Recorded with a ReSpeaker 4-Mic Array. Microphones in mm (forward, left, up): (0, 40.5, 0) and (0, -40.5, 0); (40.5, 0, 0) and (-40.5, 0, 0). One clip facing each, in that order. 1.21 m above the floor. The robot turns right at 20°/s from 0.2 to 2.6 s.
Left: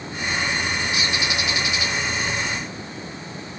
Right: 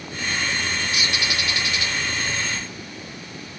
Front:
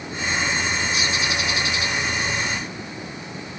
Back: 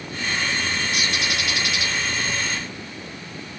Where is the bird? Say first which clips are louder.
Left 1 dB, front 1 dB; 150° left, 0.9 m; by 1.9 s 170° left, 0.9 m.